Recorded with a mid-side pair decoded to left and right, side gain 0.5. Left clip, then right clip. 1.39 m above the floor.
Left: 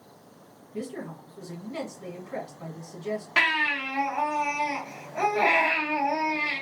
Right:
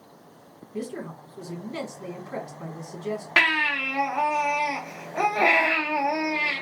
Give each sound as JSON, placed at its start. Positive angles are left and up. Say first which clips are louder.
{"t": 0.7, "sound": "a woman speaking", "louder": "right 2 dB", "azimuth_deg": -30, "distance_m": 1.7}
{"t": 3.4, "sound": "a baby crying", "louder": "right 3 dB", "azimuth_deg": -50, "distance_m": 1.3}